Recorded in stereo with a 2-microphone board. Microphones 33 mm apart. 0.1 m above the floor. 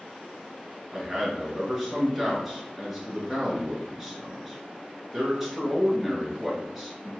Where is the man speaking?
10° right (ahead or behind), 1.1 m.